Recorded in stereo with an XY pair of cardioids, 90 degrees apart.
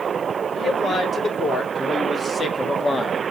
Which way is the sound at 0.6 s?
55° left.